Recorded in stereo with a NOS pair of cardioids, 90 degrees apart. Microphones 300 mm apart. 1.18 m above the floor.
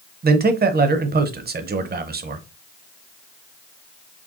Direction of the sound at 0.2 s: 35° right.